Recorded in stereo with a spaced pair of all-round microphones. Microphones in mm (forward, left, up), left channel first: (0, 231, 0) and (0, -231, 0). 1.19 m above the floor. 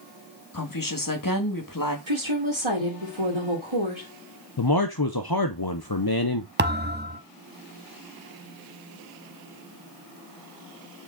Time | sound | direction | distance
0.5 | a woman speaking | 45° left (ahead or behind) | 1.7 m
2.1 | a woman speaking | 85° right | 2 m
4.6 | a man speaking | 50° left (ahead or behind) | 0.6 m
6.6 | a thud | 20° right (ahead or behind) | 0.9 m